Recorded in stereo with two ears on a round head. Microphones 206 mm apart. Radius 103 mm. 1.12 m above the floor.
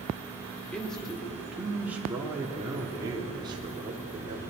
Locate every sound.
0.7 s a man speaking: 5° left (ahead or behind), 3 m; by 4.4 s 30° right (ahead or behind), 4 m